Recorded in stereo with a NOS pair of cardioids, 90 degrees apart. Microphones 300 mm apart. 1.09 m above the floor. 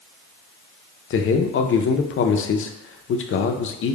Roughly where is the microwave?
No microwave in this recording.